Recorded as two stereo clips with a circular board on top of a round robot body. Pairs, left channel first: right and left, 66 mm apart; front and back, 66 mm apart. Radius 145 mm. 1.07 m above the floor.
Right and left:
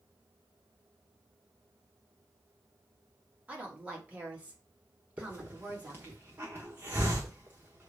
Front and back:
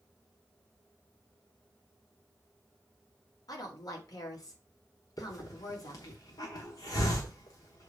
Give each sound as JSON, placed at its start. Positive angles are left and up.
{"t": 3.5, "sound": "a woman speaking", "azimuth_deg": 20, "distance_m": 2.5}
{"t": 5.2, "sound": "a hiss", "azimuth_deg": 30, "distance_m": 0.9}